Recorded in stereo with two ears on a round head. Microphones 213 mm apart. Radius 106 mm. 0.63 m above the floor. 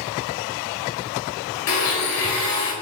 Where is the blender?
70° left (ahead or behind), 2.5 m.